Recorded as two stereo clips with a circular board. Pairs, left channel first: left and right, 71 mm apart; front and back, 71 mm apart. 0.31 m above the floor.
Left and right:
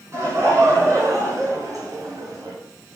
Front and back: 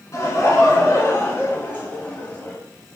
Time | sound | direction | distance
0.1 | laughter | 45° right | 4.5 m